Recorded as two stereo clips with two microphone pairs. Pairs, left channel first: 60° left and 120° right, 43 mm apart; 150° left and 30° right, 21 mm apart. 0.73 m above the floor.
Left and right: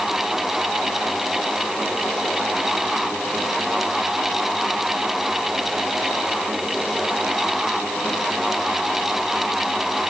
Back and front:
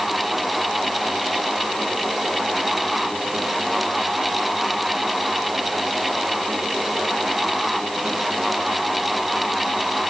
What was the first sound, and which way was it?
Only background noise.